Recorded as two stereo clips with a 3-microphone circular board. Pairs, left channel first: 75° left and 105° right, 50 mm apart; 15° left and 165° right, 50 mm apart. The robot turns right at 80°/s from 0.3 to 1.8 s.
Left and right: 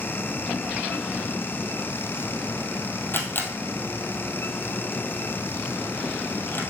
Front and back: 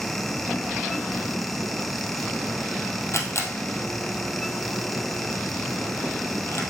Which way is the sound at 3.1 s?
30° left.